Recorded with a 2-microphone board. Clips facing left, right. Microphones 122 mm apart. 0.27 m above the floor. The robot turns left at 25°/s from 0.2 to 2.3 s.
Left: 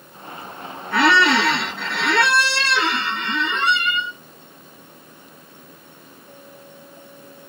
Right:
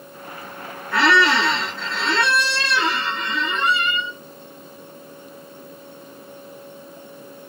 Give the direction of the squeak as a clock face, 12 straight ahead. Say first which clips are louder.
Left 1 dB; 8 o'clock.